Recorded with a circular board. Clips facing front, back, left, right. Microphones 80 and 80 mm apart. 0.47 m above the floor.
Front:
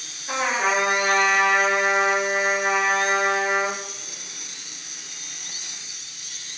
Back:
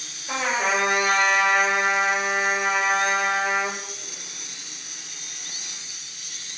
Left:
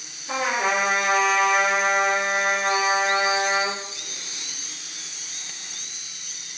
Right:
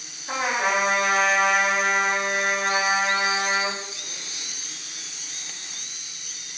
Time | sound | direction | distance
0.3 | a trumpet | 55° right | 1.8 m